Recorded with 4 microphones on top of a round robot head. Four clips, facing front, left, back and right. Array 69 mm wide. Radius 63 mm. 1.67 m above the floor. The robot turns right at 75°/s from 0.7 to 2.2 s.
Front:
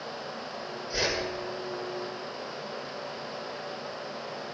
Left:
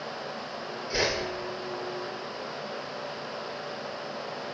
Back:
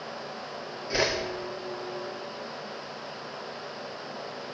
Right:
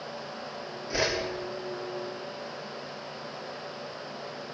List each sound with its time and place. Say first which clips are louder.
0.9 s a whoosh: even, back 4 dB; 155° right, 4 m; by 1.1 s 140° right, 4 m